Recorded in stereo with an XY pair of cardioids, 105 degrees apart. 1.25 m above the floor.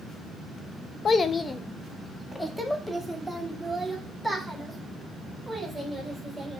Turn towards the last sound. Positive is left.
turn(degrees=-10)